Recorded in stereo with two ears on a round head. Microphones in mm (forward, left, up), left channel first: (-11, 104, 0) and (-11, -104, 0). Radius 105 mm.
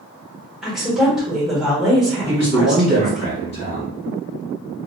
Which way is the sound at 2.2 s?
30° left (ahead or behind).